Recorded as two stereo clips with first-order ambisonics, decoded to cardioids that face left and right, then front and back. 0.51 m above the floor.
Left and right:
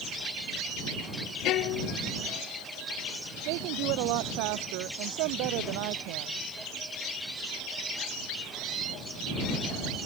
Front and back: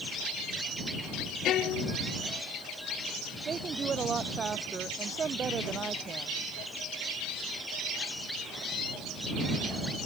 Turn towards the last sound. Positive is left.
turn(degrees=-110)